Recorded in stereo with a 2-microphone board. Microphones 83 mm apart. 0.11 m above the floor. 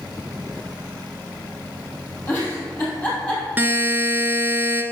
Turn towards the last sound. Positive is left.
turn(degrees=-20)  # may be behind; listen again after turning